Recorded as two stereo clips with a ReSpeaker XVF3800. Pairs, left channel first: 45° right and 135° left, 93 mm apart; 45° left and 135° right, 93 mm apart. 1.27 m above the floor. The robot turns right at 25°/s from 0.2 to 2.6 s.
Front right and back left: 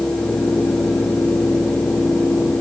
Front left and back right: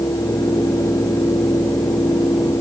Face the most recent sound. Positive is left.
No sound to turn to.